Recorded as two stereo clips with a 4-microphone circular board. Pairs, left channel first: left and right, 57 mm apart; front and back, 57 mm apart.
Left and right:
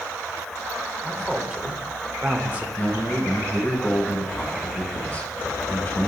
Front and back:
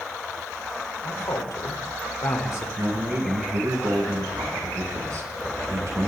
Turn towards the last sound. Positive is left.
turn(degrees=150)